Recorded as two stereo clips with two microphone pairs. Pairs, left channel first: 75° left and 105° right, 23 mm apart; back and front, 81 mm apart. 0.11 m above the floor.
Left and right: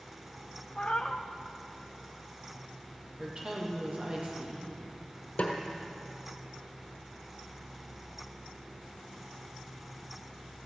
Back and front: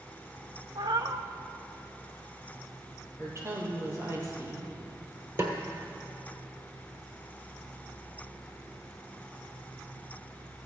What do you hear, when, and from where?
0.8 s a cat meowing: 30° left, 1.0 m
3.2 s a woman speaking: 50° right, 3 m
5.4 s a snare drum: 50° left, 1.4 m